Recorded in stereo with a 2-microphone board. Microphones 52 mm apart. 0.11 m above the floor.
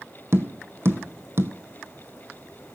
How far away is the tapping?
About 1.0 m.